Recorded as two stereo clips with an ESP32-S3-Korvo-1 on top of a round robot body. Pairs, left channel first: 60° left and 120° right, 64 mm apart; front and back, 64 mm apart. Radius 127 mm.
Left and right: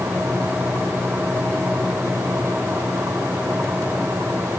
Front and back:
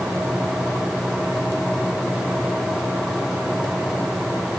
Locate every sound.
Only background noise.